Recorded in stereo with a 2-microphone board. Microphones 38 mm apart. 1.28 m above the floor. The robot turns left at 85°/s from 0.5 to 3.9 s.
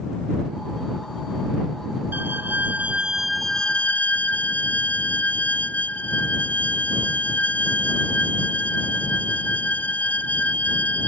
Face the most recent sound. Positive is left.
turn(degrees=135)